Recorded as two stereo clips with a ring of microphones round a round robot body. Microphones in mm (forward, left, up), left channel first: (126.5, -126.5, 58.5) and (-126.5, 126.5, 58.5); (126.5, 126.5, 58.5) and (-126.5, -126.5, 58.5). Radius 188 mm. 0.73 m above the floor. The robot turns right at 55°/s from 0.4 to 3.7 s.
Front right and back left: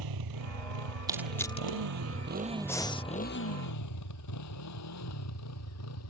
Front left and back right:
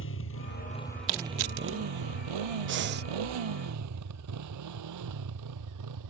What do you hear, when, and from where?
0.0 s a motorcycle: 105° left; by 6.1 s 95° right
1.1 s crushing: 145° right; by 1.8 s 105° right
2.7 s breathing: 125° right; by 3.0 s 105° right